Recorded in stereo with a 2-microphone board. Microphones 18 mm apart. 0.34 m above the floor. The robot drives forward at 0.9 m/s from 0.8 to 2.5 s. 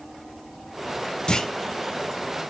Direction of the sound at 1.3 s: 55° left (ahead or behind).